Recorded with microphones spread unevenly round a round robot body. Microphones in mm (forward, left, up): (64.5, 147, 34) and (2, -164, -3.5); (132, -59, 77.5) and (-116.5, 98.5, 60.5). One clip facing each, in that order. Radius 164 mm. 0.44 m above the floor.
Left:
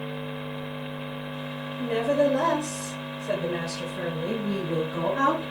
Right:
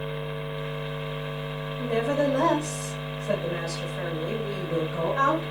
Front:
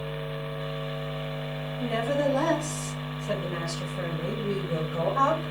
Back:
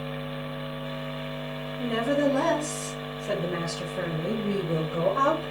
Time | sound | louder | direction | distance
1.8 | a woman speaking | left 2 dB, back 3 dB | 170° left | 2.5 m